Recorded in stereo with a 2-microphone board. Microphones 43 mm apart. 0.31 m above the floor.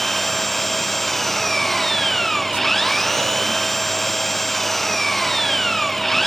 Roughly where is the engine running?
Centre.